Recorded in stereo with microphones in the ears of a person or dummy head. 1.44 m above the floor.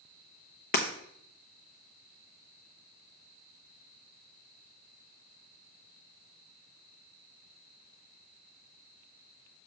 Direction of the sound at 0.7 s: 45° left (ahead or behind).